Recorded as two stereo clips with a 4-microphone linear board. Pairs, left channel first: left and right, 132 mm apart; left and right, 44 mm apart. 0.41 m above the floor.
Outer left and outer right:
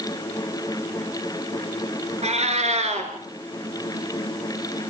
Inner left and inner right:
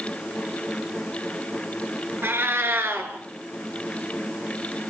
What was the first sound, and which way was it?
A cat meowing, 60° right (ahead or behind).